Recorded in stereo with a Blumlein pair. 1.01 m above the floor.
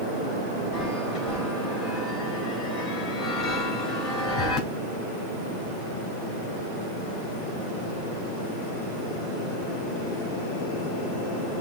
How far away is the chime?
About 2.5 m.